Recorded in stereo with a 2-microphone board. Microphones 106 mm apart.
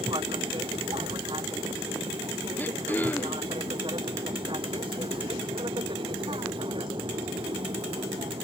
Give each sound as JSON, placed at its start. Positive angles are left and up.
{"t": 0.0, "sound": "an aircraft", "side_deg": -50}
{"t": 2.6, "sound": "throat clearing", "side_deg": 15}